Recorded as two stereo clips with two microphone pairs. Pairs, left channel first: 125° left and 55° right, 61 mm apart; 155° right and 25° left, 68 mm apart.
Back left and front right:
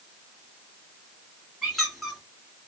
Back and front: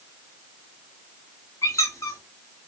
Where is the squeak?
145° right, 1.6 m.